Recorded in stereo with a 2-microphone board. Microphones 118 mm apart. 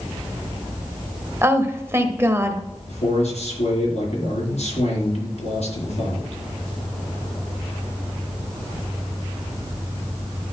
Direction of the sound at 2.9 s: 75° left (ahead or behind).